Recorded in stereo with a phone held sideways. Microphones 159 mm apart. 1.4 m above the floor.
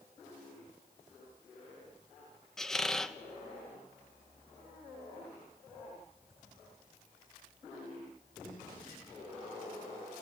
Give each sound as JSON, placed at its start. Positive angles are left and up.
{"t": 2.6, "sound": "a squeak", "side_deg": 5, "distance_m": 0.8}